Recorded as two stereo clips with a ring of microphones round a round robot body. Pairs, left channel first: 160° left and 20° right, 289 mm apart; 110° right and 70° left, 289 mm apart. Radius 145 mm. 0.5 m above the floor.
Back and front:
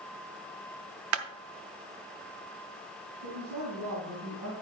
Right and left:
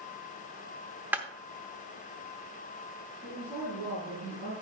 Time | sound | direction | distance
1.1 | a clap | 15° right | 0.8 m
3.2 | a woman speaking | 5° right | 5 m